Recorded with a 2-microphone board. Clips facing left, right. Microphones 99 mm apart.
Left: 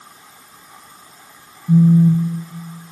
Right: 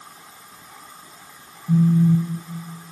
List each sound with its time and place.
1.7 s a phone buzzing: 15° left (ahead or behind), 0.7 m